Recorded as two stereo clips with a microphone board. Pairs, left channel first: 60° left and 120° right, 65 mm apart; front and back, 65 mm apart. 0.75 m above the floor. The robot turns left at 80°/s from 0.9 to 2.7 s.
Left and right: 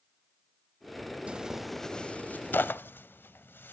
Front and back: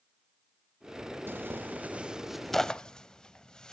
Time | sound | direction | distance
1.3 | tearing paper | straight behind | 0.6 m